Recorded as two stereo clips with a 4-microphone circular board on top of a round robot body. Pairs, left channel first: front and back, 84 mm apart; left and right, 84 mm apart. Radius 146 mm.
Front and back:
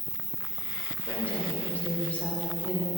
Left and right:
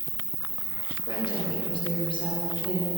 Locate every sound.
0.0 s an insect: 150° right, 2 m
1.1 s a woman speaking: 75° left, 2.5 m